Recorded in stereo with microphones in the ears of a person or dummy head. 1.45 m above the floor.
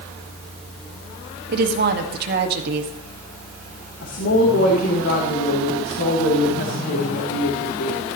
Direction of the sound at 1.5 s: 65° right (ahead or behind).